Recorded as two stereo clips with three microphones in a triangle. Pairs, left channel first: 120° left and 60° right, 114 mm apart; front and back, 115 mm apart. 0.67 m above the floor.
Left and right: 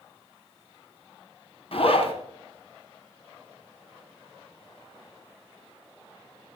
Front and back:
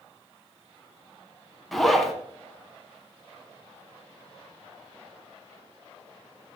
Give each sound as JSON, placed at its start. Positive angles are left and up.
{"t": 1.7, "sound": "a zipper", "azimuth_deg": 90, "distance_m": 1.9}